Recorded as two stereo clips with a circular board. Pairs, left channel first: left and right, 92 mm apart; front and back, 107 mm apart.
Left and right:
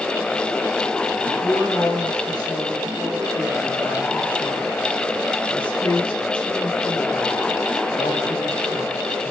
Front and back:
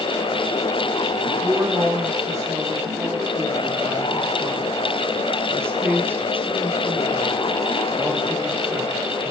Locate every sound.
1.2 s a woman speaking: 125° left, 6.5 m; by 9.3 s 90° left, 3.5 m